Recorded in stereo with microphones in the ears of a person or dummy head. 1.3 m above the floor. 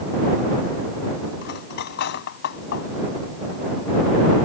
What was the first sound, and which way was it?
Cutlery clinking, 55° left (ahead or behind).